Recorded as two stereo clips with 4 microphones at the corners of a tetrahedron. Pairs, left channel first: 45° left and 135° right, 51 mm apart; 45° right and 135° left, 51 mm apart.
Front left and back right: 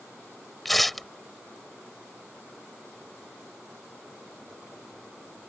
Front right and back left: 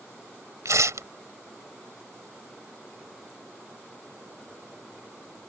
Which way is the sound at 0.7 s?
135° left.